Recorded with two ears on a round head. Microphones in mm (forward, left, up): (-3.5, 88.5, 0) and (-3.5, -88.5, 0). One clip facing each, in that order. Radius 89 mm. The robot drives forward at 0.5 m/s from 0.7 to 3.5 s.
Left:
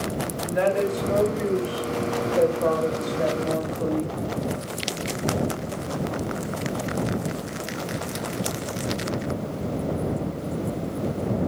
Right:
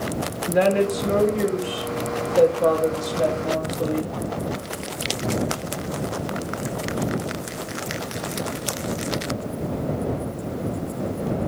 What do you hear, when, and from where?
0.5 s a woman speaking: 60° right (ahead or behind), 2.5 m; by 4.1 s 40° right (ahead or behind), 3.5 m